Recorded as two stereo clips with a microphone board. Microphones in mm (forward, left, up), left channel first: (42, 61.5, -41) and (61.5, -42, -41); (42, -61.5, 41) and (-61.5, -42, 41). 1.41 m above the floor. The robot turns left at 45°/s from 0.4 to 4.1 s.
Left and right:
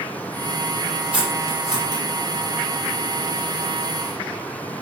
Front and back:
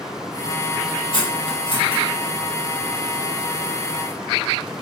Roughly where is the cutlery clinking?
Ahead.